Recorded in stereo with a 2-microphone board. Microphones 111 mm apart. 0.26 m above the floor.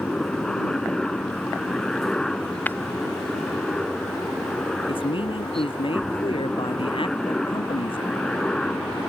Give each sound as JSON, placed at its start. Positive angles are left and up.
{"t": 0.0, "sound": "a helicopter", "side_deg": 5}
{"t": 2.7, "sound": "breaking glass", "side_deg": 15}
{"t": 4.9, "sound": "a man speaking", "side_deg": 50}